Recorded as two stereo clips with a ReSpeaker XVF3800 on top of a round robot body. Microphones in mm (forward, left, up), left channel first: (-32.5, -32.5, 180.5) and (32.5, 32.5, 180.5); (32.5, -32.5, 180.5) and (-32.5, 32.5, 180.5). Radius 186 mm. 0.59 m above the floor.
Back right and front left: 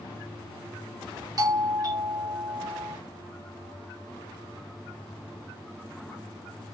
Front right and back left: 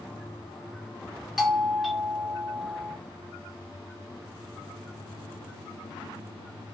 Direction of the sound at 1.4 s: 45° left.